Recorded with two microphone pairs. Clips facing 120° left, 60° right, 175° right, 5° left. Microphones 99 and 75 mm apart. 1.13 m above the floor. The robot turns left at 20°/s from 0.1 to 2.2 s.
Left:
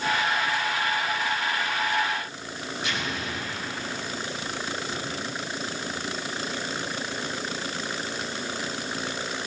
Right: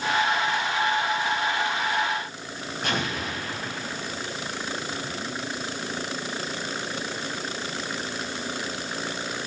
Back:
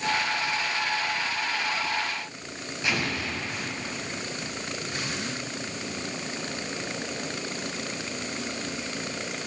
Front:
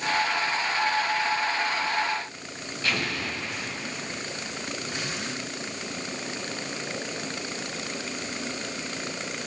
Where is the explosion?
100° right, 6 m.